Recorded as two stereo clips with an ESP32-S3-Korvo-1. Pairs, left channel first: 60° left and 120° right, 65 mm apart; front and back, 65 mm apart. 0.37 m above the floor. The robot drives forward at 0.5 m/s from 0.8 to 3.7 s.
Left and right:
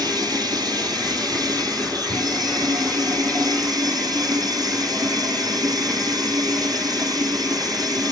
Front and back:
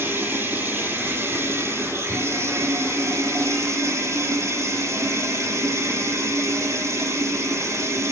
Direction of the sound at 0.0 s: 120° right.